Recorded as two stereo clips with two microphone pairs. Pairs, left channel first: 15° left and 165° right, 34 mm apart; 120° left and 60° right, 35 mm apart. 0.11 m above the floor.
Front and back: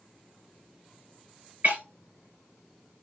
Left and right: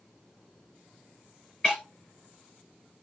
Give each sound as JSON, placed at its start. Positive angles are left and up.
{"t": 1.6, "sound": "breaking glass", "azimuth_deg": -160, "distance_m": 5.0}